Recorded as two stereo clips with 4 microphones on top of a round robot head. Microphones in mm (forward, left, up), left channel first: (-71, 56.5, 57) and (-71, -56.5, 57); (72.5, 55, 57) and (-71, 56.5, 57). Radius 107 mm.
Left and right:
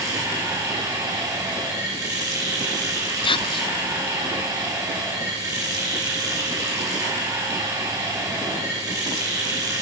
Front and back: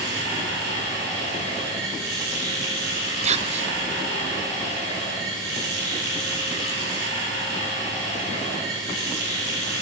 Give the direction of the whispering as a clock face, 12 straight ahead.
7 o'clock.